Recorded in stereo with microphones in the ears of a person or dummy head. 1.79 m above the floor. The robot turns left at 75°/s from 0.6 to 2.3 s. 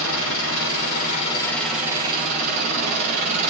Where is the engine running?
80° left, 5.5 m; by 3.5 s 45° right, 5.5 m.